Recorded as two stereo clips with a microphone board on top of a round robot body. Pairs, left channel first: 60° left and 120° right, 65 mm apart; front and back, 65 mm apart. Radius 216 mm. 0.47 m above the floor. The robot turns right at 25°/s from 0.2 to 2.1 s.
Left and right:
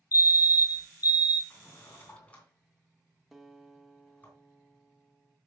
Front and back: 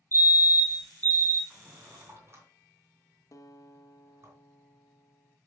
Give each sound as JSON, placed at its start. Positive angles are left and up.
{"t": 0.1, "sound": "a fire alarm", "azimuth_deg": 45, "distance_m": 3.5}
{"t": 1.5, "sound": "a drawer", "azimuth_deg": 115, "distance_m": 2.5}
{"t": 3.3, "sound": "a guitar", "azimuth_deg": -35, "distance_m": 1.1}